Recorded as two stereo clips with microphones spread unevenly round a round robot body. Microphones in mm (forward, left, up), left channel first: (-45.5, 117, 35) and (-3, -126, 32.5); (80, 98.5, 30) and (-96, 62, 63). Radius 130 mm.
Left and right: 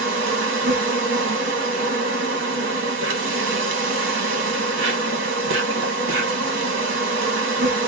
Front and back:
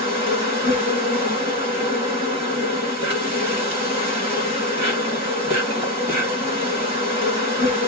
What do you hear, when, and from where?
0.0 s an insect: 105° right, 1.9 m